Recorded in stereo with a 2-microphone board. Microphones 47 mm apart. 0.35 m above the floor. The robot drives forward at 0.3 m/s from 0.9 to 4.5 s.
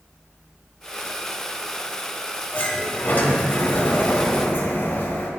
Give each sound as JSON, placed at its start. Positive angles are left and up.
{"t": 2.5, "sound": "a sliding door", "side_deg": 35, "distance_m": 1.8}